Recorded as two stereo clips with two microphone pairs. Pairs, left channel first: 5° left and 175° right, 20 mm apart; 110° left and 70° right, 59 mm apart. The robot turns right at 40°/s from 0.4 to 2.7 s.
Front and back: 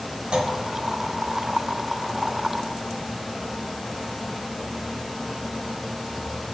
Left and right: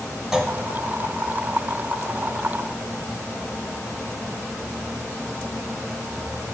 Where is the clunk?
155° right, 0.8 m; by 0.5 s 150° right, 0.8 m.